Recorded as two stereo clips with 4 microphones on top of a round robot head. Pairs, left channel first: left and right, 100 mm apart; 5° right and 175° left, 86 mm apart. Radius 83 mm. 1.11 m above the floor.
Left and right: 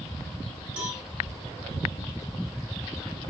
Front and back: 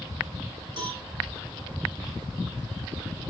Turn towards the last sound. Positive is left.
turn(degrees=-165)